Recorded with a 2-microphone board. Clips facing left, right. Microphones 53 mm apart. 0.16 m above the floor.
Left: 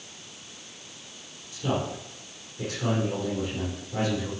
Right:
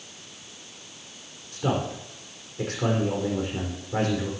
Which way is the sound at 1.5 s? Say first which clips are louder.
Right 2 dB; 55° right (ahead or behind).